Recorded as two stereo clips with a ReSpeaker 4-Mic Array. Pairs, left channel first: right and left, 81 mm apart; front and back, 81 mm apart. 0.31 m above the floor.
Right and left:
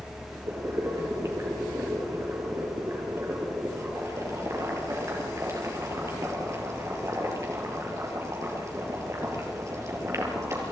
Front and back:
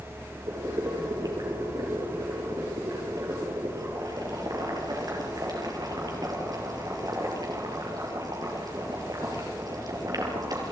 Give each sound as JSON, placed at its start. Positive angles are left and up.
{"t": 0.5, "sound": "boiling", "azimuth_deg": 140, "distance_m": 5.0}